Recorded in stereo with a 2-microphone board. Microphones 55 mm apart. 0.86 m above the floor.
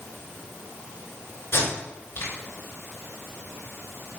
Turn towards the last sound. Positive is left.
turn(degrees=55)  # may be behind; listen again after turning